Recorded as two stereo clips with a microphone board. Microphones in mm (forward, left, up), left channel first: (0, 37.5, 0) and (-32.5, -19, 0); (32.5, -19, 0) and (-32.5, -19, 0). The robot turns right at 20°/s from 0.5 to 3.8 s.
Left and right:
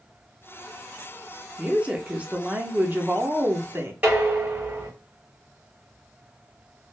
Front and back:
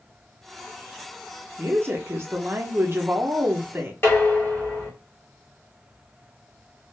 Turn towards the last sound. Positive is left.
turn(degrees=-60)